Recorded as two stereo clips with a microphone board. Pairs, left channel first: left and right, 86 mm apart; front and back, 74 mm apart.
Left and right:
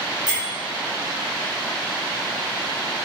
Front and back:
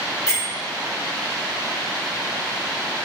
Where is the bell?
50° right, 1.5 m.